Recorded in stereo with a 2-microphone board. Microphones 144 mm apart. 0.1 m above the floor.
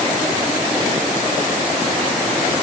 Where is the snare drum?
No snare drum in this recording.